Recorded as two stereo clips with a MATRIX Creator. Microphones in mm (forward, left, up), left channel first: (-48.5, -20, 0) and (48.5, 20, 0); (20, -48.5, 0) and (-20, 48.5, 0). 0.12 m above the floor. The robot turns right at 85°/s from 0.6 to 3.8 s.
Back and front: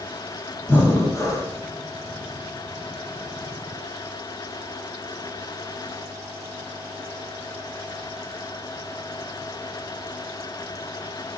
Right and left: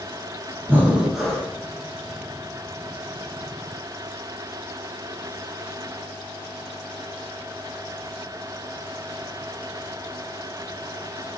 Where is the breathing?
155° left, 0.9 m; by 1.5 s 130° right, 0.9 m.